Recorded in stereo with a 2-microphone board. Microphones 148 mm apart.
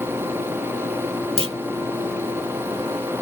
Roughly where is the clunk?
Right.